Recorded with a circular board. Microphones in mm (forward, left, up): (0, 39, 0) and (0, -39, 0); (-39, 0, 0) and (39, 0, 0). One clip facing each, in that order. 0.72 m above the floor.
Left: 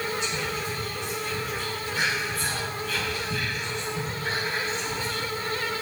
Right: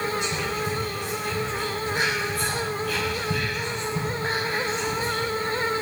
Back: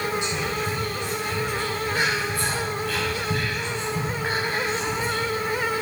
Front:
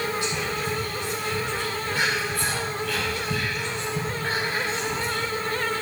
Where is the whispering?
110° right, 3.5 m.